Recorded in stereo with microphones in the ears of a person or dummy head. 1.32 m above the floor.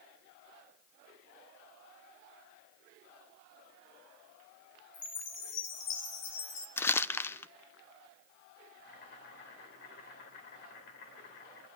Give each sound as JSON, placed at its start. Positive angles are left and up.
{"t": 4.9, "sound": "a chime", "side_deg": 70, "distance_m": 1.8}
{"t": 6.8, "sound": "crumpling", "side_deg": 15, "distance_m": 0.5}
{"t": 8.8, "sound": "boiling", "side_deg": 70, "distance_m": 3.0}